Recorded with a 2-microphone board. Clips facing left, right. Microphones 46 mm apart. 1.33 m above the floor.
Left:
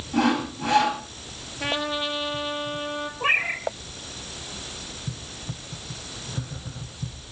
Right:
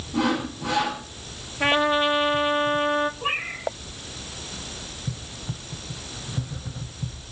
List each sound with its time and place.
0.1 s sawing: 50° left (ahead or behind), 10 m
1.6 s a trumpet: 35° right (ahead or behind), 1.9 m
3.2 s a cat meowing: 75° left (ahead or behind), 3.5 m